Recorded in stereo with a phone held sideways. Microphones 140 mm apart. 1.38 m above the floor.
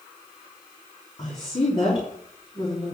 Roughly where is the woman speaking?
Left.